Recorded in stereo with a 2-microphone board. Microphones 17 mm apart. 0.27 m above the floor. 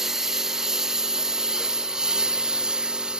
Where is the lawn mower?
25° right (ahead or behind); by 3.2 s 55° right (ahead or behind).